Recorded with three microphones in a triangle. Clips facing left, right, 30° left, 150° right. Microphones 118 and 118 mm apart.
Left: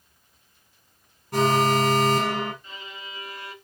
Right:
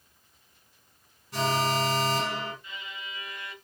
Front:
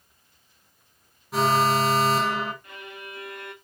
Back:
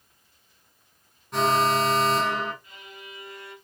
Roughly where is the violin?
Ahead left.